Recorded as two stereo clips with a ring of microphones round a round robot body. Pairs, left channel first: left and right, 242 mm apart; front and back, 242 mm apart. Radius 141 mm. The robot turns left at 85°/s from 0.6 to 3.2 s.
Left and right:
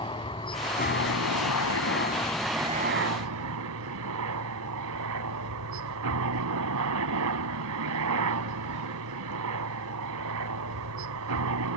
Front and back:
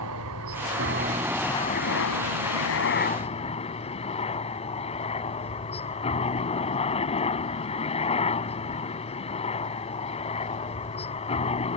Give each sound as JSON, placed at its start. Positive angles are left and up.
{"t": 0.0, "sound": "a helicopter", "azimuth_deg": 160}